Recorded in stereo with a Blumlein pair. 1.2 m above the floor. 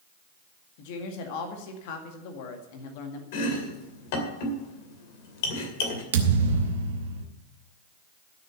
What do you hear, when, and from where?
0.8 s a woman speaking: 50° left, 1.9 m
3.3 s chopping: 50° left, 2.5 m
6.1 s a thud: 60° right, 1.5 m